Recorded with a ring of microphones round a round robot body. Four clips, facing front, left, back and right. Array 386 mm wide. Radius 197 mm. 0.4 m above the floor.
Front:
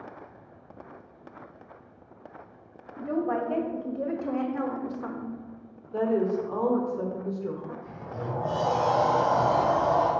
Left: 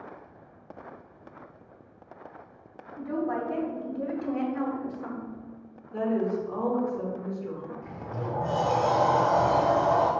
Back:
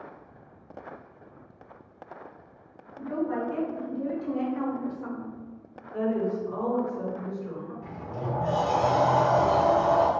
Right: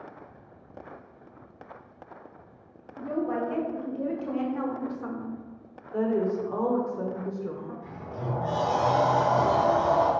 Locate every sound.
3.0 s a woman speaking: 5° right, 2 m; by 5.4 s 50° right, 1.0 m
5.9 s a woman speaking: 35° right, 1.6 m
7.8 s a sliding door: 170° left, 2.5 m